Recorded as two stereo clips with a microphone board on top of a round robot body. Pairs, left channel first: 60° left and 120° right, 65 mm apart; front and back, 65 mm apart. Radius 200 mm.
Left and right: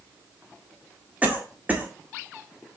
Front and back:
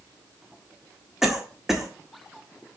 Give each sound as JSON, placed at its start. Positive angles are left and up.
{"t": 1.2, "sound": "a cough", "azimuth_deg": -105, "distance_m": 1.5}